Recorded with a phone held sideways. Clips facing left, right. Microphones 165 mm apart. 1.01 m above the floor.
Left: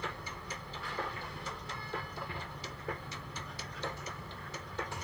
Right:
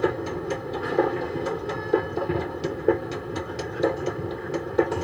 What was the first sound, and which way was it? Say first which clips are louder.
A machine running: right 19 dB; 70° right (ahead or behind).